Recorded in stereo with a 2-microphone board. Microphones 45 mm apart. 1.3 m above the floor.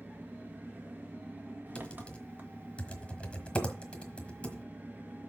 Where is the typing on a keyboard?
25° left (ahead or behind), 1.3 m.